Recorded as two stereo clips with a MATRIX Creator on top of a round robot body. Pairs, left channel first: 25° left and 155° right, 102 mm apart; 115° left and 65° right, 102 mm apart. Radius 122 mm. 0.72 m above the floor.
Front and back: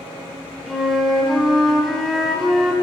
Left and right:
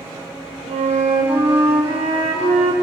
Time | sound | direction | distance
0.7 | a flute | 65° right | 2 m